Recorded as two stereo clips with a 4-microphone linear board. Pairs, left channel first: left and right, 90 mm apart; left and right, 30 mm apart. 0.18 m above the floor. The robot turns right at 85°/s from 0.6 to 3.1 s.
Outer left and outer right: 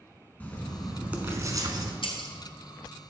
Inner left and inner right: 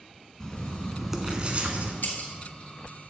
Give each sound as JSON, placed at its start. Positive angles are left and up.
{"t": 0.4, "sound": "writing", "azimuth_deg": 155, "distance_m": 1.0}
{"t": 2.0, "sound": "breaking glass", "side_deg": 75, "distance_m": 1.3}